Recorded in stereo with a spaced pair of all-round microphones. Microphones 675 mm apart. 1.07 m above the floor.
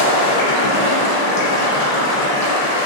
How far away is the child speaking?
No child speaking in this recording.